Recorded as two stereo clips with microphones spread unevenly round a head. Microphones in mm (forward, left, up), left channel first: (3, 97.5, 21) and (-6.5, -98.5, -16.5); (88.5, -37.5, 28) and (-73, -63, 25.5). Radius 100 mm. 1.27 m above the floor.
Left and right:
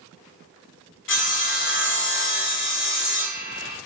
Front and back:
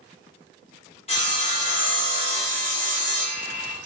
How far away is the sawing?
About 1.7 m.